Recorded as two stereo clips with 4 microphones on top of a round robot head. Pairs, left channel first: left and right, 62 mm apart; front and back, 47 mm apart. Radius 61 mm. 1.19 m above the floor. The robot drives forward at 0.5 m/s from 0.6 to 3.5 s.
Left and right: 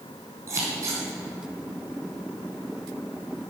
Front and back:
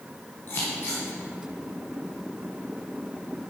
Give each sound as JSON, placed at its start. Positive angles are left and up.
{"t": 0.5, "sound": "scissors", "azimuth_deg": -50, "distance_m": 4.0}